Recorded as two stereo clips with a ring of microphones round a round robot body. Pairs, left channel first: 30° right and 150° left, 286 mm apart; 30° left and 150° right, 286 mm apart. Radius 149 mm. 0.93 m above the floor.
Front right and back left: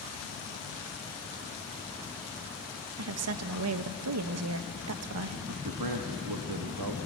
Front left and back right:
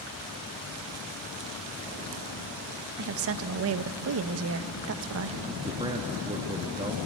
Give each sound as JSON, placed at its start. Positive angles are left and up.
{"t": 3.0, "sound": "a woman speaking", "azimuth_deg": 175, "distance_m": 0.8}
{"t": 5.5, "sound": "a man speaking", "azimuth_deg": 135, "distance_m": 1.2}